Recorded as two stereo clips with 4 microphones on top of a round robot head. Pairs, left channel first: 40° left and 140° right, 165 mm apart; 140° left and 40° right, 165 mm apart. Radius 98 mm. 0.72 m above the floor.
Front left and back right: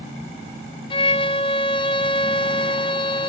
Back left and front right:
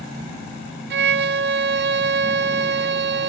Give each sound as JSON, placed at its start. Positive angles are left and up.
{"t": 0.9, "sound": "a violin", "azimuth_deg": -25, "distance_m": 0.8}